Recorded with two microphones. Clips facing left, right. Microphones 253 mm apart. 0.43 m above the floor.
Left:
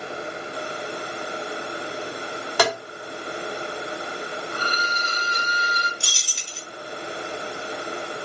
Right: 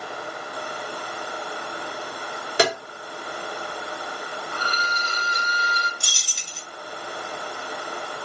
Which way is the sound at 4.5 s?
Centre (ahead or behind).